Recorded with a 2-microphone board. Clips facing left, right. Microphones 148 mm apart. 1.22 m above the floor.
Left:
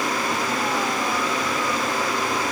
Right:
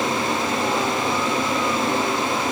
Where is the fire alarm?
I don't hear a fire alarm.